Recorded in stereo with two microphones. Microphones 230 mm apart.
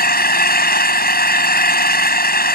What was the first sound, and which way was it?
An engine running, 40° left (ahead or behind).